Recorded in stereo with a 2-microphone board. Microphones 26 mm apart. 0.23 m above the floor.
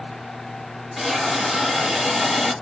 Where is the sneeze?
I don't hear a sneeze.